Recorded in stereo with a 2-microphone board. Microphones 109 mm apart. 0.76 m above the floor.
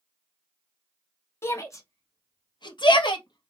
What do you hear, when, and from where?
1.4 s a shout: 25° left (ahead or behind), 1.5 m; by 3.5 s 45° left (ahead or behind), 1.2 m